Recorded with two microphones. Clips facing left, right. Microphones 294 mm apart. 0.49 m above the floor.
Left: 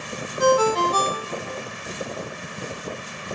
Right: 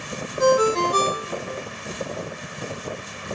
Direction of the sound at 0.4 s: 25° right (ahead or behind).